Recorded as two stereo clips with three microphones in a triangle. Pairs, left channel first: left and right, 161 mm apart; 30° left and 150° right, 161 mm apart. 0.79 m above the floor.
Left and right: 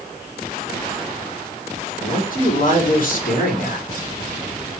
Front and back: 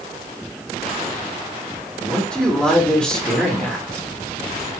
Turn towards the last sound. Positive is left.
turn(degrees=115)